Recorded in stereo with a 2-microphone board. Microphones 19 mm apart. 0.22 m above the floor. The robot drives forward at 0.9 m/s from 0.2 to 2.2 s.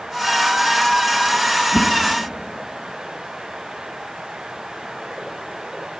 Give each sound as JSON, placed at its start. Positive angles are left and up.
{"t": 1.7, "sound": "a whoosh", "side_deg": 45, "distance_m": 3.5}